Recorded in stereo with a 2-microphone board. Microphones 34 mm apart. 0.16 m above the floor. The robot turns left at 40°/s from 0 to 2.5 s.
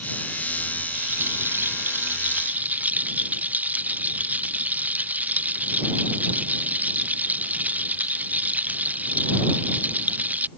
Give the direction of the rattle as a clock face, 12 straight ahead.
2 o'clock.